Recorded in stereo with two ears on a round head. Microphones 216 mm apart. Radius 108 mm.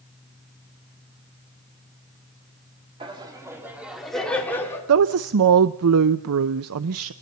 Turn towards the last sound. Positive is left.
turn(degrees=-65)  # may be behind; listen again after turning